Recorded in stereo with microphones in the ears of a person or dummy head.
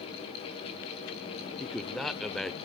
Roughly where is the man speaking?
Centre.